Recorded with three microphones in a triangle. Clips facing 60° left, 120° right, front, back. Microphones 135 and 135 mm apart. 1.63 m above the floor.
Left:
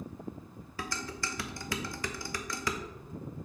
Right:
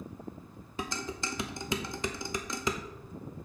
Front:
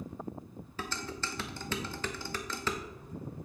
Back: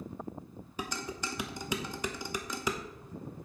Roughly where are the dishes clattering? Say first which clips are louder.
Right 2 dB, back 1 dB; behind right.